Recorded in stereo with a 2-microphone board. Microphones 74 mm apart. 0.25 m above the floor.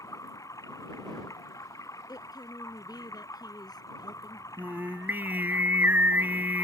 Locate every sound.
0.0 s running water: 45° left (ahead or behind)
2.1 s a woman speaking: 60° left (ahead or behind)
4.6 s singing: 25° right (ahead or behind)